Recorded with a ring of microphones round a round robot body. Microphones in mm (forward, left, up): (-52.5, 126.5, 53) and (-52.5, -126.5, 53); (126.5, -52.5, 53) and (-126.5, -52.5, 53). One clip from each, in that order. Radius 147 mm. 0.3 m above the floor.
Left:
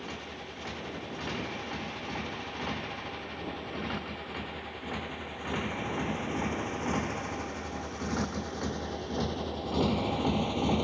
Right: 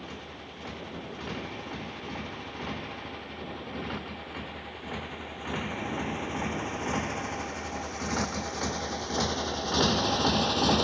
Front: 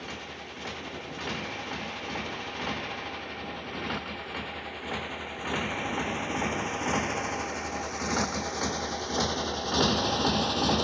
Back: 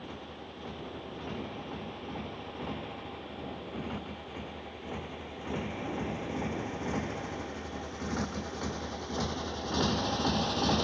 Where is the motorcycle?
10° left; by 10.8 s 70° right.